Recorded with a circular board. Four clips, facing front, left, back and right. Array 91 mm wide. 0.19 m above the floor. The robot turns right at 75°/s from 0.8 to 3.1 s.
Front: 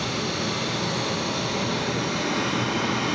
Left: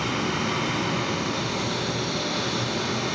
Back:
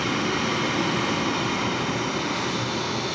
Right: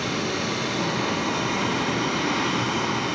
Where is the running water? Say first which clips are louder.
Even, back 3 dB; 155° left, 1.4 m; by 3.1 s 30° right, 1.4 m.